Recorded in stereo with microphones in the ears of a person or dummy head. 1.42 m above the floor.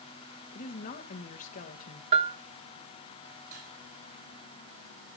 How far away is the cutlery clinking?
About 8 m.